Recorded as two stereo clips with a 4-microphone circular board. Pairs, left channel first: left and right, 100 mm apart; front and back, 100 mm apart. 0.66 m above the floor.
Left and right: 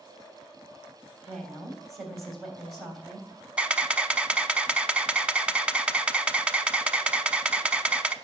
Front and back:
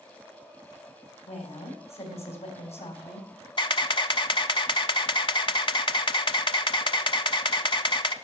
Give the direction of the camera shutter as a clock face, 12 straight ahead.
12 o'clock.